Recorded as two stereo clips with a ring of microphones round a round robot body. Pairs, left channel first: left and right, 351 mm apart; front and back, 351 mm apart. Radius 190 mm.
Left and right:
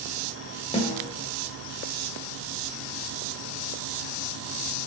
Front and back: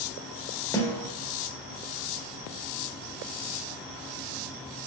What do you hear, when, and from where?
0.7 s a snare drum: 65° left, 1.3 m